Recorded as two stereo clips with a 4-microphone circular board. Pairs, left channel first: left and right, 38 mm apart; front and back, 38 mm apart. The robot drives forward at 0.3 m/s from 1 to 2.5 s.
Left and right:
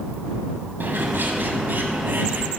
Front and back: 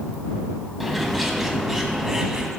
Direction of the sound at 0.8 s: 95° right.